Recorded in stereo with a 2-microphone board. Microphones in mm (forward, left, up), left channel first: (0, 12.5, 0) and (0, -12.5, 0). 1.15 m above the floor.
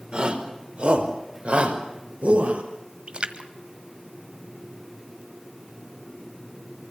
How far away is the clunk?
No clunk in this recording.